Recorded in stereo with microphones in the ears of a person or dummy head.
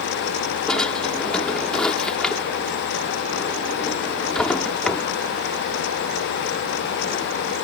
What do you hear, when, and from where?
0.7 s a drawer: 5° left (ahead or behind)